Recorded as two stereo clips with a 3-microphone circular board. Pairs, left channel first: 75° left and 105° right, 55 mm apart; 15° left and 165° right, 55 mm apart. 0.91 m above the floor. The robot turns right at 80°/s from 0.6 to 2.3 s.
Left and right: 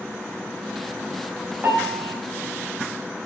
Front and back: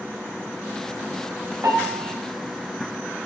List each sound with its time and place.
1.6 s a piano: 160° right, 3.5 m; by 2.1 s 115° right, 3.5 m